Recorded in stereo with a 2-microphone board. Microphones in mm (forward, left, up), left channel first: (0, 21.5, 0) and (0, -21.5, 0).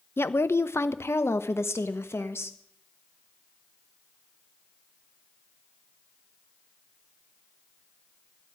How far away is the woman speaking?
About 0.8 m.